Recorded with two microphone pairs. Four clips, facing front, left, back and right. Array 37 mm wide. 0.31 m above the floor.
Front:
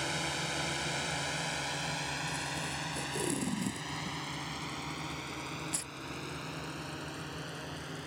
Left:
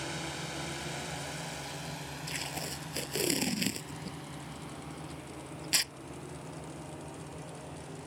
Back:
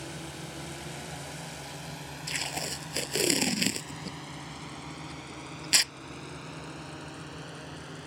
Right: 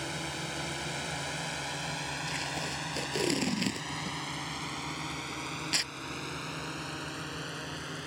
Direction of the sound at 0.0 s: 10° right.